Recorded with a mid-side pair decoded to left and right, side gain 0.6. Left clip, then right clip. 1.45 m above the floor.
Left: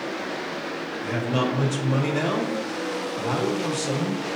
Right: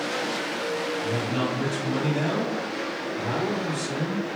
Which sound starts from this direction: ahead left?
A man speaking, at 1.0 s.